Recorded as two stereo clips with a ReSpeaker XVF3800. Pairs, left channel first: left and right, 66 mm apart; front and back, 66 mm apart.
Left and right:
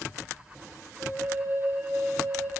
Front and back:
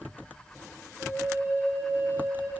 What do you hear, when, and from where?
1.0 s a flute: 135° right, 7 m